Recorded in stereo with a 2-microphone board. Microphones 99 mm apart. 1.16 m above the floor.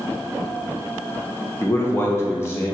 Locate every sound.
1.6 s a man speaking: 25° left (ahead or behind), 0.7 m